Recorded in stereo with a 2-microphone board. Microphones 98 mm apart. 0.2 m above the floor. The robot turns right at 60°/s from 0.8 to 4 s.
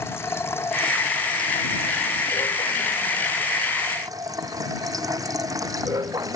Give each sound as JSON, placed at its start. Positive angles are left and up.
{"t": 0.0, "sound": "running water", "azimuth_deg": 25}